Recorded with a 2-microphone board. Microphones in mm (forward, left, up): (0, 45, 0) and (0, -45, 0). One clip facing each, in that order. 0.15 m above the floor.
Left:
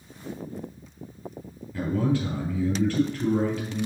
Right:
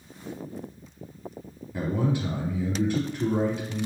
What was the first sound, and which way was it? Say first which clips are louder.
A man speaking: left 2 dB; 20° right (ahead or behind).